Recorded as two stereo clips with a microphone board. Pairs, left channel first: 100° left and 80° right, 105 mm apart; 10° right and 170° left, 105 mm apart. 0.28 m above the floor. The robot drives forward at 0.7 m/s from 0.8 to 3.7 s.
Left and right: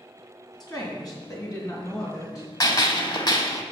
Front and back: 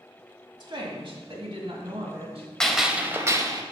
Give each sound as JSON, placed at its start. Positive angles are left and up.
{"t": 0.6, "sound": "a woman speaking", "azimuth_deg": 140, "distance_m": 1.9}
{"t": 2.6, "sound": "a gunshot", "azimuth_deg": 70, "distance_m": 0.8}